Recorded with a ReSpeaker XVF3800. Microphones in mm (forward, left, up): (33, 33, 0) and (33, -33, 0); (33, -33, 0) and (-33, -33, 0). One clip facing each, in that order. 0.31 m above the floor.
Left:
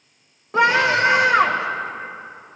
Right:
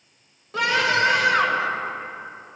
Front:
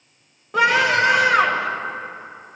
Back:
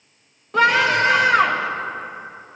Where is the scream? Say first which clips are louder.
Left 4 dB, back 1 dB; 75° left, 1.2 m.